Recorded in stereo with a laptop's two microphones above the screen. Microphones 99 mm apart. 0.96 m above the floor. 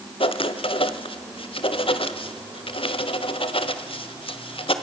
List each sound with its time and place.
0.2 s writing: 65° left (ahead or behind), 1.5 m